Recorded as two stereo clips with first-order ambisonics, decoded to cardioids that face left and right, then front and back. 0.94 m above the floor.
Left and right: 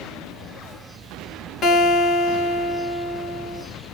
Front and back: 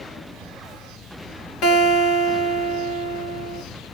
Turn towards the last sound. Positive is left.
turn(degrees=30)